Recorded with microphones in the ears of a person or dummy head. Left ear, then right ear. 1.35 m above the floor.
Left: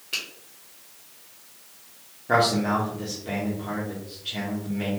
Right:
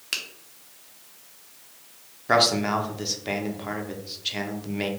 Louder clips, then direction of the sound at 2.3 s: Right 1 dB; 40° right (ahead or behind).